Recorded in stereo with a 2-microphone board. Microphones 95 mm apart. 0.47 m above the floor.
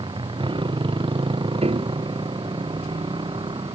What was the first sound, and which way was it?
A motorcycle, 55° right (ahead or behind).